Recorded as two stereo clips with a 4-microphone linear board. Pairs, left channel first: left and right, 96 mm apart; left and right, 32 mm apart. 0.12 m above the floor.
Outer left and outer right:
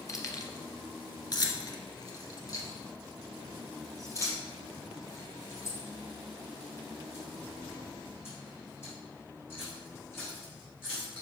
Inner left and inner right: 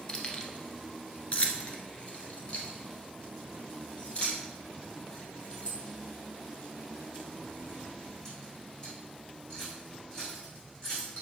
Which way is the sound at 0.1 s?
35° left (ahead or behind).